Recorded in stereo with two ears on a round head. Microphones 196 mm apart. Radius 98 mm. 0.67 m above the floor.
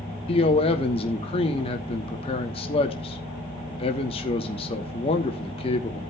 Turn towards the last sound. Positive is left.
turn(degrees=30)  # may be behind; listen again after turning